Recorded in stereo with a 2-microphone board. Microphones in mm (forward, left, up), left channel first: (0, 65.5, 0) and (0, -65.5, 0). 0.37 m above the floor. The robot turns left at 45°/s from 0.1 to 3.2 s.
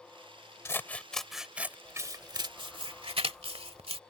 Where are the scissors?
20° left (ahead or behind); by 4.0 s 50° right (ahead or behind).